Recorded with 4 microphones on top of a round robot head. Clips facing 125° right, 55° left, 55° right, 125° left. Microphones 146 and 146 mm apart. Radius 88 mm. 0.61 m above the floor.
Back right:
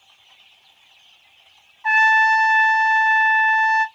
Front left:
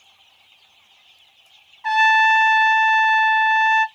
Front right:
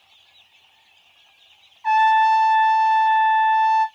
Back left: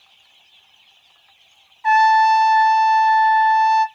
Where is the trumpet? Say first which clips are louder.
Front left 1 dB, back left 2 dB; 105° left, 0.9 m.